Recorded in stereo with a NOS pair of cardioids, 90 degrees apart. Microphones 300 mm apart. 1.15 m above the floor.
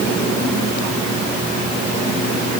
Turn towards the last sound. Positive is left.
No sound to turn to.